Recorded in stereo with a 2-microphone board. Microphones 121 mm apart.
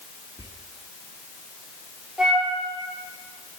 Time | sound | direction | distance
0.4 | whispering | 30° right (ahead or behind) | 0.9 m
2.2 | a flute | 5° right (ahead or behind) | 1.7 m